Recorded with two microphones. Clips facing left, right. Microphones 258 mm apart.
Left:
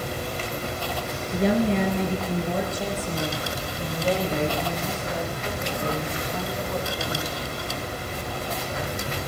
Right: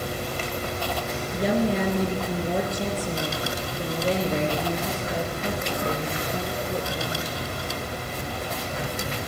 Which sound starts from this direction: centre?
A woman speaking, at 1.3 s.